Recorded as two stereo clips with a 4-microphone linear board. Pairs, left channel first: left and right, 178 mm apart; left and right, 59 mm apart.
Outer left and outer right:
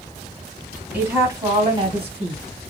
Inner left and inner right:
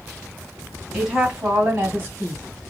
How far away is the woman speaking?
About 2.5 m.